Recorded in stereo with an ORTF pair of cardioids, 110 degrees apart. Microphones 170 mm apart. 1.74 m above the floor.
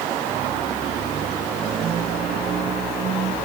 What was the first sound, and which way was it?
Only background noise.